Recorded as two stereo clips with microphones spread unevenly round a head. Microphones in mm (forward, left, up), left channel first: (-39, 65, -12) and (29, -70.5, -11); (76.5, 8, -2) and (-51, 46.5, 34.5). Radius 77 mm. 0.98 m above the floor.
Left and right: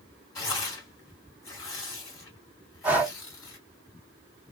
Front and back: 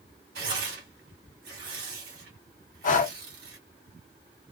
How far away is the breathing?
About 0.9 m.